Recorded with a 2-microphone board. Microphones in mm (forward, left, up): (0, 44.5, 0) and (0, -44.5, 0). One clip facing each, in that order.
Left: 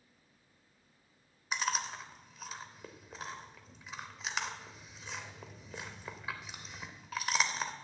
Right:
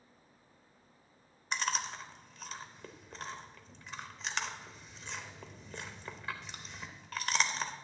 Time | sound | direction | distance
1.5 | chewing | 5° left (ahead or behind) | 0.6 m